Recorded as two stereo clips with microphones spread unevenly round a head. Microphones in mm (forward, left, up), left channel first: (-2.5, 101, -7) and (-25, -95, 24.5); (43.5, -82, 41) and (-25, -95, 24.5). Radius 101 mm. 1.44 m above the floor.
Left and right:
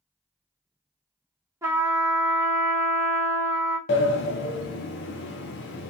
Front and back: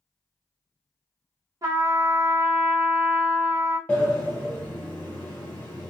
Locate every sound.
1.6 s a trumpet: 145° right, 0.6 m
3.9 s a sliding door: 70° left, 0.6 m